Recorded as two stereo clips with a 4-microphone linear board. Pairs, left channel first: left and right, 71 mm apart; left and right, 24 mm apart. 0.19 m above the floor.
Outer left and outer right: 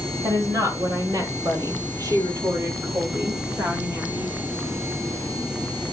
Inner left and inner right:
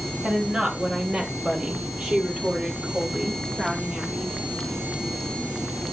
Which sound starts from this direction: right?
A woman speaking, at 0.2 s.